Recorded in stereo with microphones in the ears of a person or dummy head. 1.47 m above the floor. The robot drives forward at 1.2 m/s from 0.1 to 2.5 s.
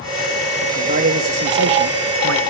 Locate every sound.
0.6 s a man speaking: 45° right (ahead or behind), 2.5 m; by 2.4 s 80° right, 1.9 m